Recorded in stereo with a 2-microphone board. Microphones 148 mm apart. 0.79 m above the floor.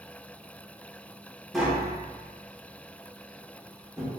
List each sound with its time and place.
1.5 s tapping: centre (ahead or behind), 0.8 m